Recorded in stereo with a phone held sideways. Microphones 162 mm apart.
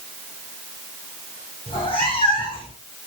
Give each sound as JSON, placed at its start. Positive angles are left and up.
{"t": 1.7, "sound": "a cat meowing", "side_deg": 35, "distance_m": 6.0}